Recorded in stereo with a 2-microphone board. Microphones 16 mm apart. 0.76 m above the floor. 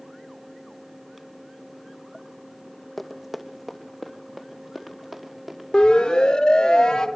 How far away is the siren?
About 3.5 m.